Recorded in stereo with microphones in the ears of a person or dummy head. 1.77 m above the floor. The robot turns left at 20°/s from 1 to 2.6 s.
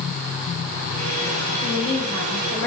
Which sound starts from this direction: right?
A woman speaking, at 1.6 s.